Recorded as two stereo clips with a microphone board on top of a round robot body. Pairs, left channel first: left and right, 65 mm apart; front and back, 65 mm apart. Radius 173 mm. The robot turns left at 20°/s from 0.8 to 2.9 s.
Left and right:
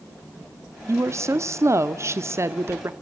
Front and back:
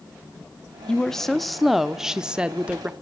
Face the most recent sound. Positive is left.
turn(degrees=-115)